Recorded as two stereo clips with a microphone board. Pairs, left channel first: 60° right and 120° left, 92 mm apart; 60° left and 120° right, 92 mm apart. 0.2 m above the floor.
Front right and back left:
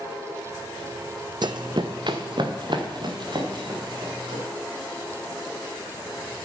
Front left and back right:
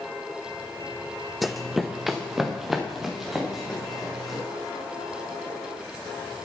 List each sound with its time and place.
1.4 s running footsteps: 150° left, 0.5 m; by 4.4 s 155° left, 3.5 m